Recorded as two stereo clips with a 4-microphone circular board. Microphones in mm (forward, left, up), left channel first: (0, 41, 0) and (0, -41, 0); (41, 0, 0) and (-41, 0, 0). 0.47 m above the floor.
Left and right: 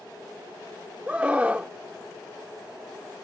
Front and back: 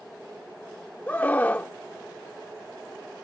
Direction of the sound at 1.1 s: 40° right.